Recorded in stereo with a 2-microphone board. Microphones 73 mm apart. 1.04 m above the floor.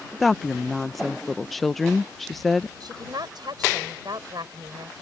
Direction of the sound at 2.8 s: 70° right (ahead or behind).